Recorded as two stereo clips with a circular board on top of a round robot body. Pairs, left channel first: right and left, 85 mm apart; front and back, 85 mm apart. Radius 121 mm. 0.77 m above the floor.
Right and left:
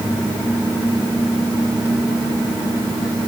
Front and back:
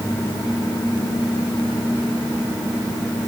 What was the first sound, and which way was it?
Only background noise.